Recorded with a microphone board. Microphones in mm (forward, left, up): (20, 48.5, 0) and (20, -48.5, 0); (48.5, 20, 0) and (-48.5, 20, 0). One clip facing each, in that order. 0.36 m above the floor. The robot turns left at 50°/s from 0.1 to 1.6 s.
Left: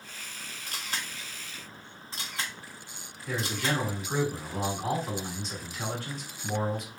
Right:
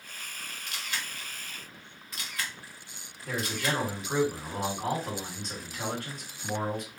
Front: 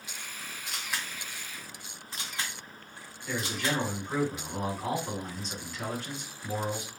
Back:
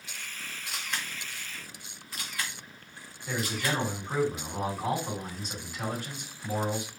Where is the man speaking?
95° right, 2.5 m.